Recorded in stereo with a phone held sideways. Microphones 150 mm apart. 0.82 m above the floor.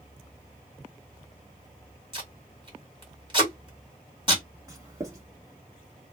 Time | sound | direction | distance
2.1 | tape being pulled | 35° right (ahead or behind) | 2 m
4.7 | writing | 25° right (ahead or behind) | 1.4 m